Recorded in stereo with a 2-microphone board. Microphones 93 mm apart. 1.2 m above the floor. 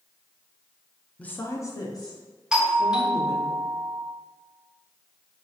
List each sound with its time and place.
1.2 s a woman speaking: 10° left (ahead or behind), 0.6 m; by 3.5 s 50° left (ahead or behind), 2.5 m
2.5 s a doorbell: 5° right (ahead or behind), 0.7 m